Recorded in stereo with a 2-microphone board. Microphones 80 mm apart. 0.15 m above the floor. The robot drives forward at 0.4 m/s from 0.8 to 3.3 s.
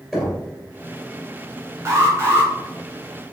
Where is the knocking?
Centre (ahead or behind), 2.5 m.